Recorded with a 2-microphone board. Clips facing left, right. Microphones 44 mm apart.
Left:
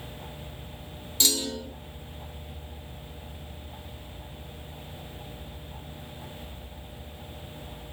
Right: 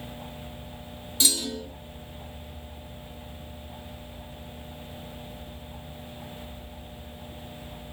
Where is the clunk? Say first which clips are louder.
Even; 10° right (ahead or behind), 1.2 m.